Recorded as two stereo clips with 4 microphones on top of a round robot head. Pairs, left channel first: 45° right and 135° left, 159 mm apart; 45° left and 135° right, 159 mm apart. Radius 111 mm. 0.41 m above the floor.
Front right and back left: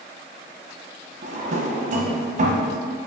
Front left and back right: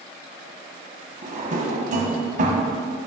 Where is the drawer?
Straight behind, 0.7 m.